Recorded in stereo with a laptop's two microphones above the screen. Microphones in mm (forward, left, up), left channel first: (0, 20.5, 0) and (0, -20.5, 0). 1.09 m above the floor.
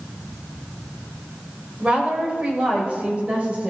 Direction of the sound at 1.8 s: 30° right (ahead or behind).